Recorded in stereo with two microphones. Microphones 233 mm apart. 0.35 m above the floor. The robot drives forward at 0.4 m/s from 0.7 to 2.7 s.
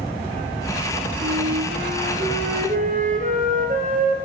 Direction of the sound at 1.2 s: 40° right (ahead or behind).